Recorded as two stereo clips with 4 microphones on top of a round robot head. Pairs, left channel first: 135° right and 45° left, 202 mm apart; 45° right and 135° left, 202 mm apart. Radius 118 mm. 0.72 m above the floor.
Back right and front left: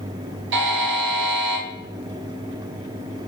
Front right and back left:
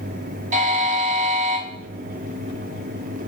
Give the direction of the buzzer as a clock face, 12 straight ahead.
9 o'clock.